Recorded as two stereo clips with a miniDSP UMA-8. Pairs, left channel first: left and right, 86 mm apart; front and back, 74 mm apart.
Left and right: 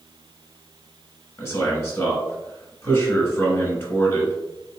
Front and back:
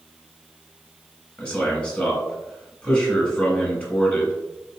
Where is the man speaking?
65° left, 1.3 m.